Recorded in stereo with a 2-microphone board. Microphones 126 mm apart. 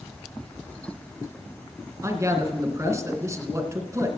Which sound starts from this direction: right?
A man speaking, at 2.0 s.